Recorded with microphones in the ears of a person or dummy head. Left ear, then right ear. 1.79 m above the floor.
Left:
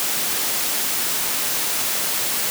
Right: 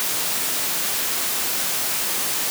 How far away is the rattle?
I don't hear a rattle.